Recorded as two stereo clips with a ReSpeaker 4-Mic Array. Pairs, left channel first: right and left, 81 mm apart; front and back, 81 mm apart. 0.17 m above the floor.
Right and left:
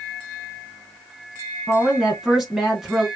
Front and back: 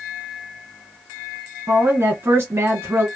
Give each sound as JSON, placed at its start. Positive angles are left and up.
{"t": 1.7, "sound": "a woman speaking", "azimuth_deg": 170, "distance_m": 1.2}